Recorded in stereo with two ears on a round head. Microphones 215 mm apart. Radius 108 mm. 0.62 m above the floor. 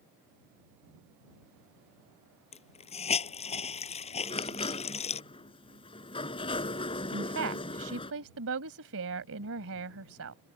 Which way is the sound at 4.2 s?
25° left (ahead or behind).